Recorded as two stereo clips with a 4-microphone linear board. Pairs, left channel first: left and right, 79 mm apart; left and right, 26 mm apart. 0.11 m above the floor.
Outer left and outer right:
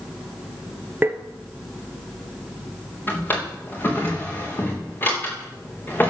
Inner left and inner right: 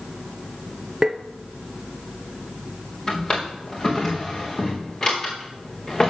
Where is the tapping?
25° right (ahead or behind), 0.9 m.